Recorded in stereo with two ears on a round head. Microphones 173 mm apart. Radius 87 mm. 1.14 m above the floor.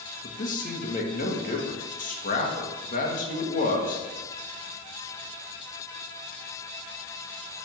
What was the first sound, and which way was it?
A man speaking, 45° left (ahead or behind).